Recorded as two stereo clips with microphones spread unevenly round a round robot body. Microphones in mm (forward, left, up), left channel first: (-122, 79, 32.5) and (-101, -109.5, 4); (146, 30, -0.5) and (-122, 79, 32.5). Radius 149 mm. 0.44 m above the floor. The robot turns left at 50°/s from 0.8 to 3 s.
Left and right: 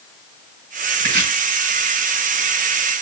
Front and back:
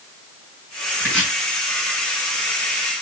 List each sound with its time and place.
1.0 s chopping: 100° right, 4.5 m; by 1.3 s 115° right, 4.5 m